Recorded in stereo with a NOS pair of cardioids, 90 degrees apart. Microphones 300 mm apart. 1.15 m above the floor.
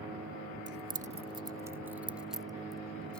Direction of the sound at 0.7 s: 40° right.